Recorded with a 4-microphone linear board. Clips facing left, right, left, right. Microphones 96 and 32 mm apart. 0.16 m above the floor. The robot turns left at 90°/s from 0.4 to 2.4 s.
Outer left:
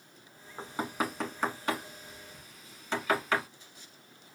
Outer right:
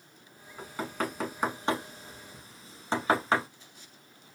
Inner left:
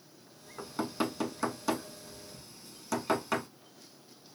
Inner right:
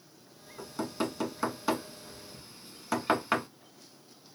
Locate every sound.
0.6 s knocking: 30° left (ahead or behind), 0.9 m; by 3.5 s 35° right (ahead or behind), 0.9 m